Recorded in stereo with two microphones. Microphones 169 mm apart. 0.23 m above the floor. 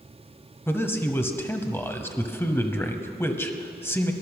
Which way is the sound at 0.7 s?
15° left (ahead or behind).